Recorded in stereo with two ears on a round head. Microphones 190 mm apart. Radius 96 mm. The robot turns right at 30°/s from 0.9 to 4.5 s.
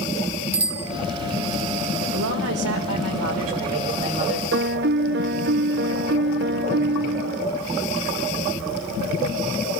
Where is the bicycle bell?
30° right (ahead or behind), 3.5 m.